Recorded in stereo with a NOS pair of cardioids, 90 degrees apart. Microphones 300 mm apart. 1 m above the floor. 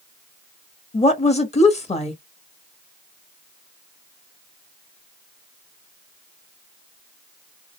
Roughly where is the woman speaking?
Ahead.